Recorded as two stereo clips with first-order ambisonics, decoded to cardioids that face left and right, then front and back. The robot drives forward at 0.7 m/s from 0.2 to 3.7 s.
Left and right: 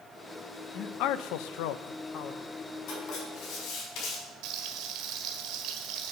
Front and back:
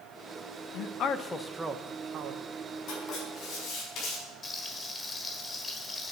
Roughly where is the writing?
Ahead left.